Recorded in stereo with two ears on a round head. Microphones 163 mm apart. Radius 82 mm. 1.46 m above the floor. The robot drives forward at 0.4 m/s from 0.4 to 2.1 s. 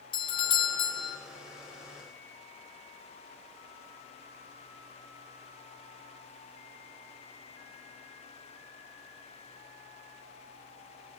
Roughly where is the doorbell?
Left.